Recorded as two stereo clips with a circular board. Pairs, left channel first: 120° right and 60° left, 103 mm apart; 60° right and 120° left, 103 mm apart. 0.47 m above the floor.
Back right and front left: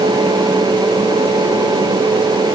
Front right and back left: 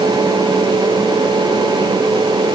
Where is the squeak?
I don't hear a squeak.